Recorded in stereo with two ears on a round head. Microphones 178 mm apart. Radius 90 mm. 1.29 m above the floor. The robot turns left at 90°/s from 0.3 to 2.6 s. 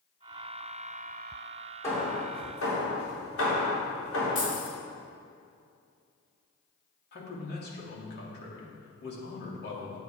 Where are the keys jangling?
40° left (ahead or behind), 3 m.